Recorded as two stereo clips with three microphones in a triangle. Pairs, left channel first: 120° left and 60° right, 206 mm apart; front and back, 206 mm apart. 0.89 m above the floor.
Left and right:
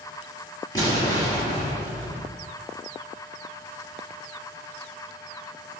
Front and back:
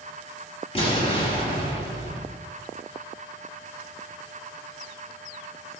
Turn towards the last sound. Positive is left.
turn(degrees=55)